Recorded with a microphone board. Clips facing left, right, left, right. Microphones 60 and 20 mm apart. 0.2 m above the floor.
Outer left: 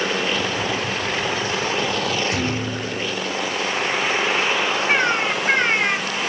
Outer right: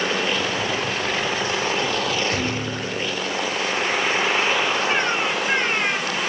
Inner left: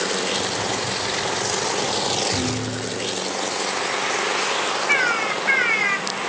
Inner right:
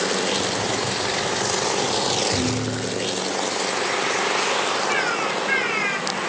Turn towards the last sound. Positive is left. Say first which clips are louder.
# outer left 2 dB, inner left 2 dB
turn(degrees=70)  # may be behind; listen again after turning